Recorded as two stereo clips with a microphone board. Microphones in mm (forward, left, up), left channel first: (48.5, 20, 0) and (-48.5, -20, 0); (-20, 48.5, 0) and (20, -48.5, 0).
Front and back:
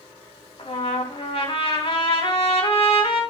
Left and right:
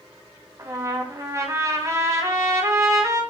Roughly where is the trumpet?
Ahead.